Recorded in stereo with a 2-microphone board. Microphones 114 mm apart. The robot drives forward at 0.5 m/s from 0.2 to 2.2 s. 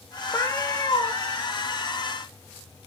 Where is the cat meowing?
25° left (ahead or behind), 1.1 m; by 1.1 s 35° left (ahead or behind), 0.7 m.